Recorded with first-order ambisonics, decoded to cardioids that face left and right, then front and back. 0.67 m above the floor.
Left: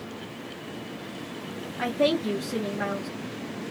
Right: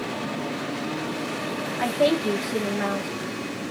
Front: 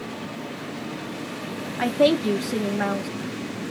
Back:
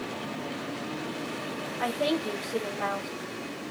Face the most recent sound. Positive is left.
turn(degrees=-5)